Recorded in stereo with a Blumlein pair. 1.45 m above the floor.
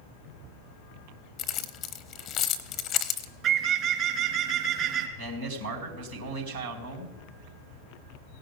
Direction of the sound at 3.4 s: 35° right.